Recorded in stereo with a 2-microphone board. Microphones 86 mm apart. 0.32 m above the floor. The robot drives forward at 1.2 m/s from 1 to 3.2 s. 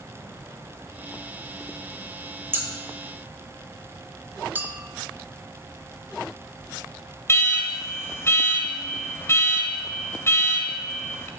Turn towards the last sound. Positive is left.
turn(degrees=30)  # may be behind; listen again after turning